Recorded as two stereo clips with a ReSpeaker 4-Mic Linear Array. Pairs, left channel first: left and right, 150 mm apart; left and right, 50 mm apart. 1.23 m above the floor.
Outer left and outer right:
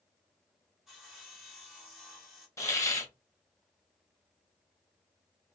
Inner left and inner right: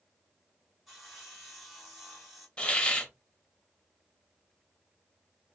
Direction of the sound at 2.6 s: 20° left (ahead or behind).